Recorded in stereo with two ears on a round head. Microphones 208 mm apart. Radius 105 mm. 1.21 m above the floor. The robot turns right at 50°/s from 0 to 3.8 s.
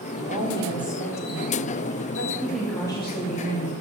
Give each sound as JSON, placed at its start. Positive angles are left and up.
{"t": 0.1, "sound": "a woman speaking", "azimuth_deg": -40, "distance_m": 3.0}
{"t": 2.4, "sound": "a woman speaking", "azimuth_deg": -10, "distance_m": 3.0}